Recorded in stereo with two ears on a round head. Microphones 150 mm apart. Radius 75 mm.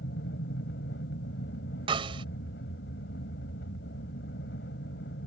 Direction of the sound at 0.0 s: 65° left (ahead or behind).